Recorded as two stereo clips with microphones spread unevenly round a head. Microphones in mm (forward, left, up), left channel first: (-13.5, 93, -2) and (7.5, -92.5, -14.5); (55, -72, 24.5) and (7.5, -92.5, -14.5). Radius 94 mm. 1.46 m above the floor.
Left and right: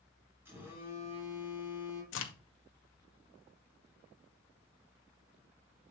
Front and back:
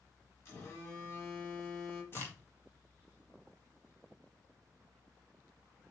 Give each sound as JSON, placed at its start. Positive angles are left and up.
{"t": 0.5, "sound": "a phone buzzing", "azimuth_deg": -5, "distance_m": 3.5}
{"t": 2.1, "sound": "a crack", "azimuth_deg": 75, "distance_m": 1.1}